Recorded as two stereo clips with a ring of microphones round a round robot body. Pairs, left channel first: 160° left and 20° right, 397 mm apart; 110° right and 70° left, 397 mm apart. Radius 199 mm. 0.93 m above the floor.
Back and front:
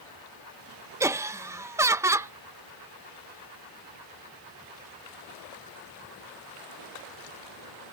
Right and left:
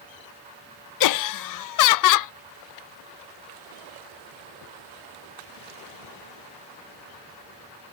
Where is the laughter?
105° right.